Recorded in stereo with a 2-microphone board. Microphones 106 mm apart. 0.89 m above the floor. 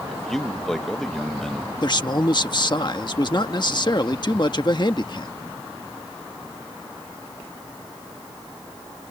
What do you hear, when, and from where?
0.1 s a man speaking: 5° left (ahead or behind)
1.8 s a man speaking: 45° left (ahead or behind)